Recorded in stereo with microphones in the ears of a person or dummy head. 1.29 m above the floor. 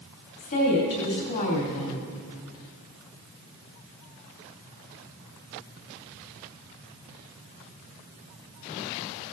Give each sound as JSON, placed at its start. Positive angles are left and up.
{"t": 0.4, "sound": "a woman speaking", "side_deg": 50, "distance_m": 3.0}